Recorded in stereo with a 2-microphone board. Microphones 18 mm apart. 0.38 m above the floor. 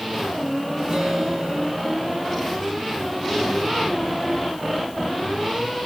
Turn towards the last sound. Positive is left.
turn(degrees=-50)  # may be behind; listen again after turning